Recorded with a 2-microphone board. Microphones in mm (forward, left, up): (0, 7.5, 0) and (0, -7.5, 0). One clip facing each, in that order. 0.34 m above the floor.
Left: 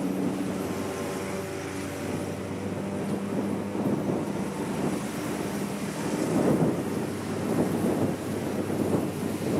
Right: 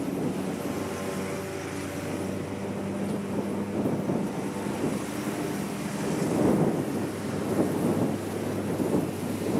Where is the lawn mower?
15° left (ahead or behind).